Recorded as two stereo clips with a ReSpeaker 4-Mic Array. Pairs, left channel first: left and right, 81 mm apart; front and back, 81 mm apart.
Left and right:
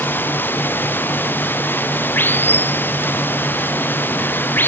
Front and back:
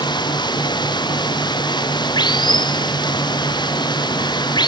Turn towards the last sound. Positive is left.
turn(degrees=25)